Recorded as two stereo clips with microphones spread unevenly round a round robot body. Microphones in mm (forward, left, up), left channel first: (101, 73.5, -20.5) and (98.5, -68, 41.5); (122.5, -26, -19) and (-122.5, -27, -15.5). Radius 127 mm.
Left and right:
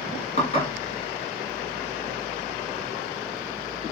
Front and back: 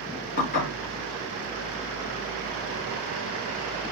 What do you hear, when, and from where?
0.4 s dishes clattering: 60° left, 2 m